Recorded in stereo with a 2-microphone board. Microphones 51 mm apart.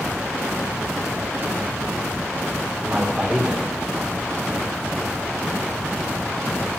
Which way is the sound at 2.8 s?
15° right (ahead or behind).